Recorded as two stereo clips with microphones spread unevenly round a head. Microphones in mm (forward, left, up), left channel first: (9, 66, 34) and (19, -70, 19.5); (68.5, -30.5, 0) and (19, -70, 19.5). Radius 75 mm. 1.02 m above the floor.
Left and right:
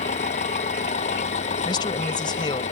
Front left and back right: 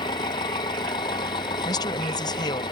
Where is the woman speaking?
35° left.